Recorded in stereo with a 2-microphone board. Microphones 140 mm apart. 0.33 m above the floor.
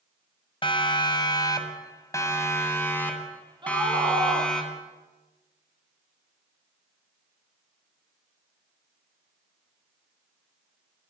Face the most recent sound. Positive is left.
turn(degrees=-35)  # may be behind; listen again after turning